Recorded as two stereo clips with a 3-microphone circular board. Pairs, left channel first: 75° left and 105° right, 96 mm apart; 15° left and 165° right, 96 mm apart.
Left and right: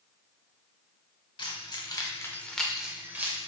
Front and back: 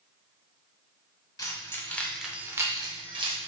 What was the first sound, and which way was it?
Keys jangling, 60° left.